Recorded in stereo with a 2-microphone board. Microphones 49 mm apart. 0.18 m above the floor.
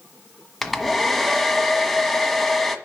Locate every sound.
0.6 s a hair dryer: 5° left (ahead or behind), 1.3 m